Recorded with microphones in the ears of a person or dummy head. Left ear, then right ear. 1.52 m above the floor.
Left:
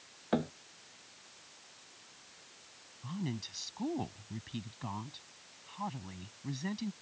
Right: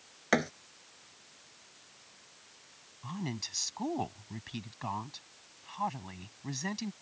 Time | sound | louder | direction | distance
0.3 | a thud | right 5 dB | 60° right (ahead or behind) | ?
3.0 | a woman speaking | right 3 dB | 30° right (ahead or behind) | ?